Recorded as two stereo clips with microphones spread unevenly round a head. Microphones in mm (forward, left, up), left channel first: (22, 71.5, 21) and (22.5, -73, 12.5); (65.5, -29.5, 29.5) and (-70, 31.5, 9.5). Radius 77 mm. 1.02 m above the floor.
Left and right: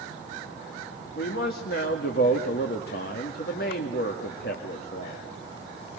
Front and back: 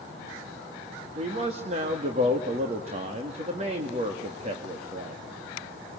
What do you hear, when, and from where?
1.2 s a man speaking: 115° left, 2 m